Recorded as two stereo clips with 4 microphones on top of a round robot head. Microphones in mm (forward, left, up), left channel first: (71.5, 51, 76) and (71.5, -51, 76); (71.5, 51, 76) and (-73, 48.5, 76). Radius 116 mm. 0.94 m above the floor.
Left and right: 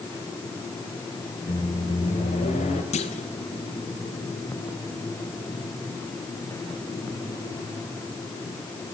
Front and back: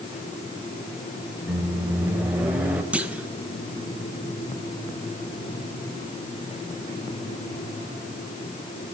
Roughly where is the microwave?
Left.